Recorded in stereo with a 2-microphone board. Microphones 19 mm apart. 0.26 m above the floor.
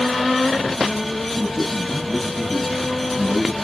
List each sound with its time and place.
1.4 s a man speaking: 5° left (ahead or behind), 9.5 m; by 3.5 s 10° right (ahead or behind), 9.5 m